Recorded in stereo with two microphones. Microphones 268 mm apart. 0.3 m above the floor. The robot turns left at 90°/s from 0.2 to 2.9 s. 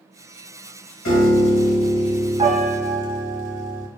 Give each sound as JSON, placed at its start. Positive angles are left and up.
{"t": 1.1, "sound": "a piano", "azimuth_deg": 95, "distance_m": 0.7}